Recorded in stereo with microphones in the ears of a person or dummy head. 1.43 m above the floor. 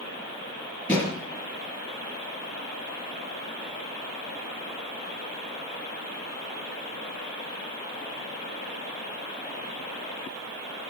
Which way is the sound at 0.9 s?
15° left (ahead or behind).